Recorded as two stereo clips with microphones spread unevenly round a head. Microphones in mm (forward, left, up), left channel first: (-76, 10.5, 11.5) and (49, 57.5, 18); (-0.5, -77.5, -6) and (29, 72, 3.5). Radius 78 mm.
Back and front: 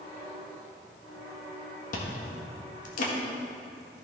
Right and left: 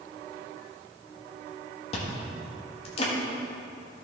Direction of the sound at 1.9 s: 150° right.